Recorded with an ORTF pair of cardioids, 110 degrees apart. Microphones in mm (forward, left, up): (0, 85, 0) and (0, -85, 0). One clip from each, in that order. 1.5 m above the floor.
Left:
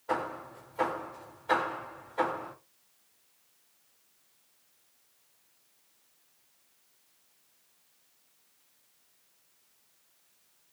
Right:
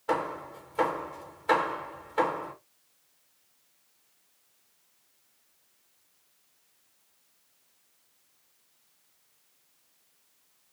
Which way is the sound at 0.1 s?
65° right.